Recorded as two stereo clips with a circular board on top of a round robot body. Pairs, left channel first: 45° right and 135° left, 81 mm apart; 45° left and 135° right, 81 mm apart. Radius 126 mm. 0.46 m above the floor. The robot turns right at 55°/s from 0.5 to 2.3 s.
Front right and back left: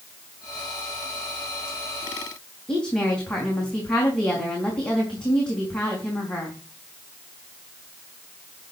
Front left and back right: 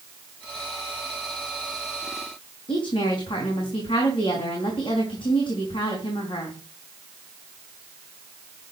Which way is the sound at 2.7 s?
35° left.